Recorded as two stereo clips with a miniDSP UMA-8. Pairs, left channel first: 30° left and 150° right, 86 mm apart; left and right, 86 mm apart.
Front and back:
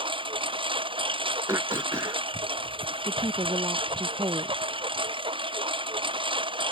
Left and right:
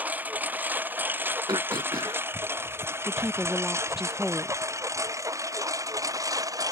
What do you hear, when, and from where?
0.0 s a lawn mower: 160° right; by 6.7 s 135° right
1.5 s throat clearing: 105° right
3.0 s a woman speaking: 175° right